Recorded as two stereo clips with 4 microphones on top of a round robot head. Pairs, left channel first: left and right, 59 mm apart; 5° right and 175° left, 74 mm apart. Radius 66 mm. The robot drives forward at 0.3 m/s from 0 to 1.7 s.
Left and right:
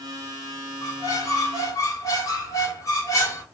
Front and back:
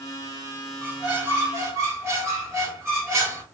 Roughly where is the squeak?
Left.